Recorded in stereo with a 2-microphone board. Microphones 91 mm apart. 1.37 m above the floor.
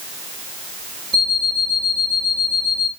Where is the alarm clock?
65° left (ahead or behind), 3.5 m.